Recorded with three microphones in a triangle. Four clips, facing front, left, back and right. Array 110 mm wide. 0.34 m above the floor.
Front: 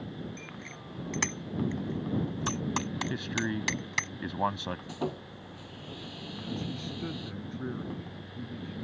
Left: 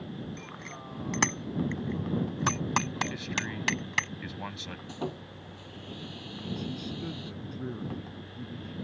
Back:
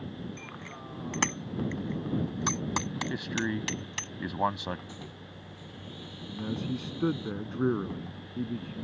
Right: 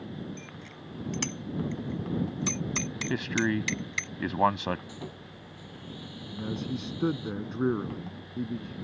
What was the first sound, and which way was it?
A bicycle bell, 135° left.